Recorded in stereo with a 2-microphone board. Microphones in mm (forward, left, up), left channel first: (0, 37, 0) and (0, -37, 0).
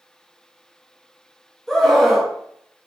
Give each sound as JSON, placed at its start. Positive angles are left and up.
{"t": 1.7, "sound": "a scream", "side_deg": 5, "distance_m": 0.8}